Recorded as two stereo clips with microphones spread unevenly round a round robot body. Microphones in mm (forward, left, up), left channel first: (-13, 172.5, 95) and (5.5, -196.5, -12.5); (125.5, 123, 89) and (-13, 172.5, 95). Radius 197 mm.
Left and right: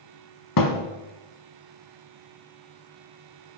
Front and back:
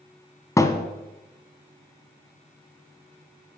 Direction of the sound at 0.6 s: 50° left.